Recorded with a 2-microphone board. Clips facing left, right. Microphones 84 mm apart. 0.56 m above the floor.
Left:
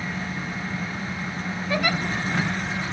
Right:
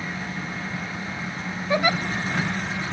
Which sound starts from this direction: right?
A giggle, at 1.7 s.